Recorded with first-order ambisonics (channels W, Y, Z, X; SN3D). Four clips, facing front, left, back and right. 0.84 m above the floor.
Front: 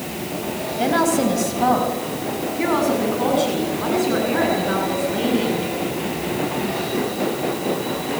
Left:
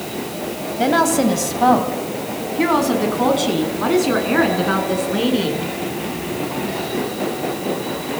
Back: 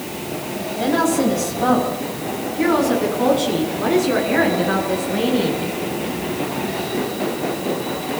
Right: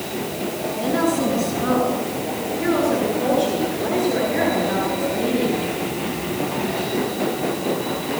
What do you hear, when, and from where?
0.8 s a woman speaking: 75° left, 4.5 m; by 5.6 s 95° left, 10 m